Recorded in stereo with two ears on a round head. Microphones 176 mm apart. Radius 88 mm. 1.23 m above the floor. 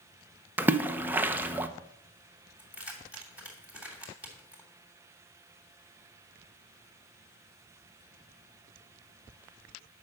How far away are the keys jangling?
About 3 m.